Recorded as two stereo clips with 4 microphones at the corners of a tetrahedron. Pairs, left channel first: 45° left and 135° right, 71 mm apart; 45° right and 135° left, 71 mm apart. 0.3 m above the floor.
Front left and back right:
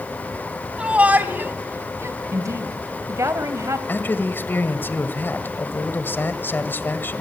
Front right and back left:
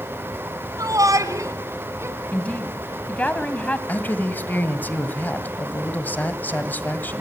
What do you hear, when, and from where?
0.8 s a shout: 150° left, 2.5 m; by 2.2 s straight behind, 3 m
2.3 s a woman speaking: 110° right, 2 m
3.9 s a man speaking: 5° left, 1.7 m